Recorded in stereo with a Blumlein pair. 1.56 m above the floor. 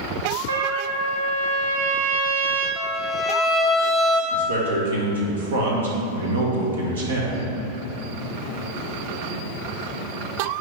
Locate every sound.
0.5 s a trumpet: 70° right, 1.0 m
2.8 s a violin: straight ahead, 1.2 m
4.3 s a man speaking: 65° right, 1.7 m